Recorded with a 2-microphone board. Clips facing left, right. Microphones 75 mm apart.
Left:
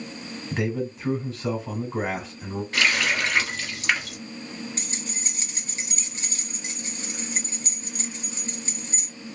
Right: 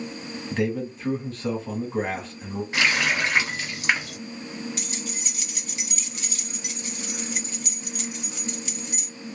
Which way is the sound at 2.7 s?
15° right (ahead or behind).